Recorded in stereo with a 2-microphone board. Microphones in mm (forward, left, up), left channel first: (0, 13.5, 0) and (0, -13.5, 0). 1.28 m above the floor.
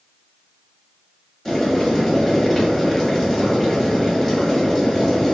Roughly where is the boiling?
Centre.